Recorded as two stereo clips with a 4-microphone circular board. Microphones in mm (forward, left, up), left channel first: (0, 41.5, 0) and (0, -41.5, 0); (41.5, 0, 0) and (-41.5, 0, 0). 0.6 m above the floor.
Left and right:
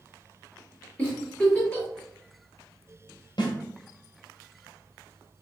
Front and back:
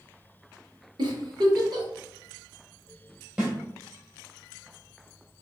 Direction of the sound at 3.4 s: 105° left.